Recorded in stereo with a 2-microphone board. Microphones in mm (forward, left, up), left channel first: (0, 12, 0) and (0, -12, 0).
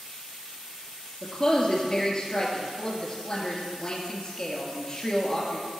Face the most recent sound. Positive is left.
turn(degrees=35)  # may be behind; listen again after turning